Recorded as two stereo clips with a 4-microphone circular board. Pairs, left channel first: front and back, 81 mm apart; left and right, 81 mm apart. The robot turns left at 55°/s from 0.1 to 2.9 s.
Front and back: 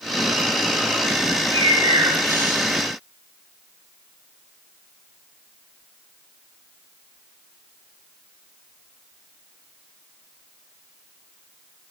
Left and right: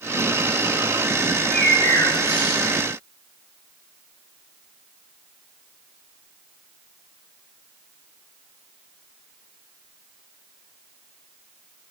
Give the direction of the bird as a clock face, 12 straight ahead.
6 o'clock.